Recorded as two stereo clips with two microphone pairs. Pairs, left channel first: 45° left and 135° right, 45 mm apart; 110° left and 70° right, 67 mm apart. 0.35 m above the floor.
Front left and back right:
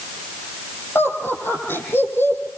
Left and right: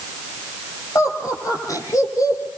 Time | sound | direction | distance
0.9 | laughter | 75° left | 9.5 m